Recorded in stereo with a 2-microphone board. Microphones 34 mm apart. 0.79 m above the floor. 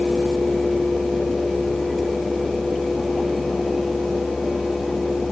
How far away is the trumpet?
No trumpet in this recording.